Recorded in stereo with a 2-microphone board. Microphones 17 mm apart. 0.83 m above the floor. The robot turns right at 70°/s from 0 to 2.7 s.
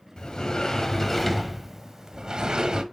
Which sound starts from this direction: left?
A sliding door, at 0.2 s.